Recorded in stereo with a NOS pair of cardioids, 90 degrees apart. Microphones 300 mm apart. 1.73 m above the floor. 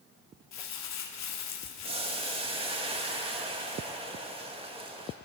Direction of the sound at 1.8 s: 20° right.